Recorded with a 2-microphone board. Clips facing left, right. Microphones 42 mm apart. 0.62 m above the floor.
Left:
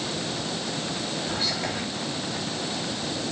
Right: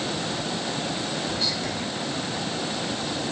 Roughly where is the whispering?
Left.